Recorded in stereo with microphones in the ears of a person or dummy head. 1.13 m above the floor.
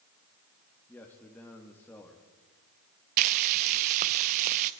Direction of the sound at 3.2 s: 50° right (ahead or behind).